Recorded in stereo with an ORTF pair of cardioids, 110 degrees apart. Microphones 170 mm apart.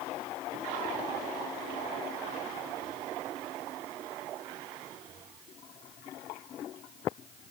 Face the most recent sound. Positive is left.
No sound to turn to.